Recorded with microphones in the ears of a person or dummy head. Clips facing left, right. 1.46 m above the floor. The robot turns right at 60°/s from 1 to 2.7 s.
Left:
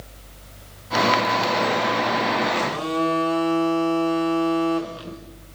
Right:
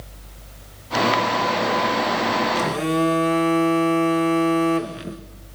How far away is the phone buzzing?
About 1.0 m.